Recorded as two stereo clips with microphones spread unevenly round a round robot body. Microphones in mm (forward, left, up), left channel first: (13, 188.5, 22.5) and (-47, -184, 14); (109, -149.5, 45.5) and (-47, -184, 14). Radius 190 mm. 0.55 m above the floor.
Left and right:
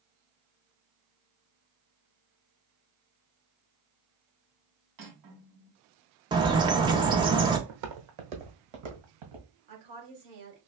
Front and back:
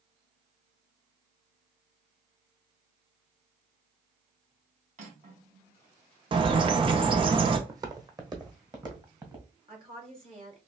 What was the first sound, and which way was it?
Cutlery clinking, 130° right.